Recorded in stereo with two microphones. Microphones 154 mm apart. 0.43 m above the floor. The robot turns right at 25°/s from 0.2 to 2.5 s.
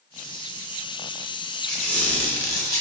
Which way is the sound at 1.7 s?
Centre (ahead or behind).